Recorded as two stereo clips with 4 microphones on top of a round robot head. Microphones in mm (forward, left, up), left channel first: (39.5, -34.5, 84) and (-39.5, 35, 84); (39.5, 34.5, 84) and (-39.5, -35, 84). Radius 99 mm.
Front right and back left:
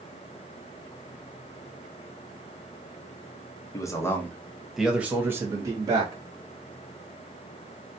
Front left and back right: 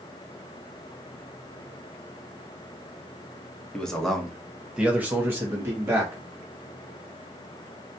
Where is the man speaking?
35° right, 1.0 m; by 6.2 s 165° left, 1.3 m.